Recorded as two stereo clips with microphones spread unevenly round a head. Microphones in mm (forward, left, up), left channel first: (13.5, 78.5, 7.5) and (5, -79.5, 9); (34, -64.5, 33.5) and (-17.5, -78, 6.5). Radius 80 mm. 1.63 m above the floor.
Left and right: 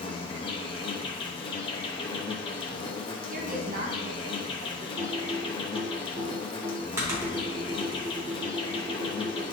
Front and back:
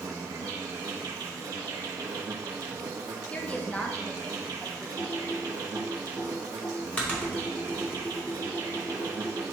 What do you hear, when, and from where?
0.0 s an insect: 150° left, 0.7 m
3.3 s a woman speaking: 55° right, 0.9 m
5.0 s typing on a keyboard: 25° right, 3 m